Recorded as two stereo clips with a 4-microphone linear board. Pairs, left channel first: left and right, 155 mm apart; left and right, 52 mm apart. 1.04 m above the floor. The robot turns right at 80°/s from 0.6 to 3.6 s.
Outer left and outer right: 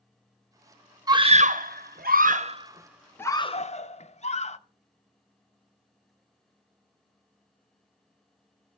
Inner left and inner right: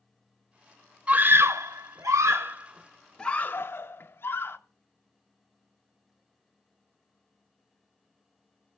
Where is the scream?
25° right (ahead or behind), 0.8 m; by 4.6 s 45° left (ahead or behind), 0.8 m.